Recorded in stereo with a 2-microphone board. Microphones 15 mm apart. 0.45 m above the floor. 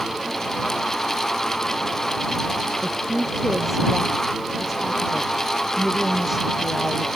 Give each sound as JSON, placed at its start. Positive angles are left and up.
{"t": 2.8, "sound": "a woman speaking", "side_deg": -10}